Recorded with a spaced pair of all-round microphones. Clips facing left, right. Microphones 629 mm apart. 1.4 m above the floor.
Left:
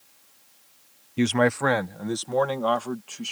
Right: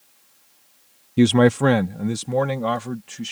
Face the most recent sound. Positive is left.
turn(degrees=-50)  # may be behind; listen again after turning